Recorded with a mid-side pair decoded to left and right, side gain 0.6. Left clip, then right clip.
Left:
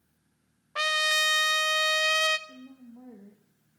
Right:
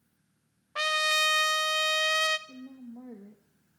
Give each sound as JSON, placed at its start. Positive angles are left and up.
{"t": 0.8, "sound": "a trumpet", "azimuth_deg": 5, "distance_m": 0.7}
{"t": 2.5, "sound": "a woman speaking", "azimuth_deg": -25, "distance_m": 1.3}